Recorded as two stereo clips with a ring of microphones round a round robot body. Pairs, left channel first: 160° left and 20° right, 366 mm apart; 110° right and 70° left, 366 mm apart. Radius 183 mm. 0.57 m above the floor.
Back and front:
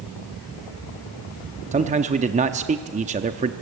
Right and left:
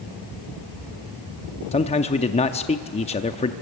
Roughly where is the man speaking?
Ahead right.